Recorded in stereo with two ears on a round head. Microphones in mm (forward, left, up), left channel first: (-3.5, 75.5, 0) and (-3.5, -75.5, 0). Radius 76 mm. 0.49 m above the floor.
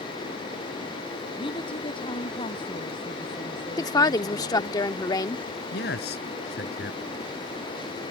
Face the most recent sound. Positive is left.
turn(degrees=65)  # may be behind; listen again after turning